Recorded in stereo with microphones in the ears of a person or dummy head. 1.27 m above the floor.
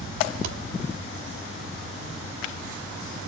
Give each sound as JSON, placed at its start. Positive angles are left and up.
{"t": 0.4, "sound": "a thud", "side_deg": -60, "distance_m": 1.2}